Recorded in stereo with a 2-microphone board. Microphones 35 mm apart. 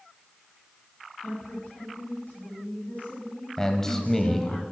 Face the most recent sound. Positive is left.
turn(degrees=15)  # may be behind; listen again after turning